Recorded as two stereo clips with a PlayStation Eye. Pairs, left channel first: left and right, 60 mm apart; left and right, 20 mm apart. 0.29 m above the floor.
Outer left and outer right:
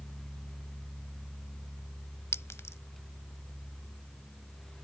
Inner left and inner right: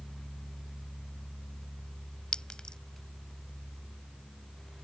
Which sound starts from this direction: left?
A clink, at 2.3 s.